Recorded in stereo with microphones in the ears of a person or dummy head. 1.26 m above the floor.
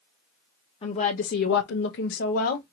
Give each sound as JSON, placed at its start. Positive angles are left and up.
{"t": 0.8, "sound": "a woman speaking", "side_deg": 30, "distance_m": 0.6}